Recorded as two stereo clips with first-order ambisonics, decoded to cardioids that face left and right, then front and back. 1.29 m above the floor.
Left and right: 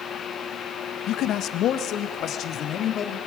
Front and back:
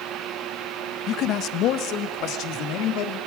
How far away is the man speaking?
About 0.9 m.